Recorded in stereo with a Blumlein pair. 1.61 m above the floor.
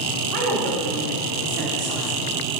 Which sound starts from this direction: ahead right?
A woman speaking, at 0.3 s.